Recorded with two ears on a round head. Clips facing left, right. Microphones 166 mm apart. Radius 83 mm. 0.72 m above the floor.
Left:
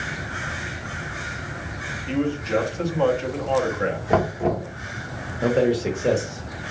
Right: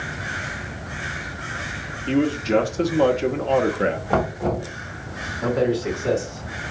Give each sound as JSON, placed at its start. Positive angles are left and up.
{"t": 2.1, "sound": "a man speaking", "side_deg": -40, "distance_m": 0.7}
{"t": 4.1, "sound": "knocking", "side_deg": 20, "distance_m": 1.3}
{"t": 5.4, "sound": "a man speaking", "side_deg": 40, "distance_m": 1.2}